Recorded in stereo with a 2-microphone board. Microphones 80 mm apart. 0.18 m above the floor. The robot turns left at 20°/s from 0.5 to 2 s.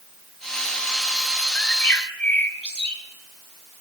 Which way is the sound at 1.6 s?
20° left (ahead or behind).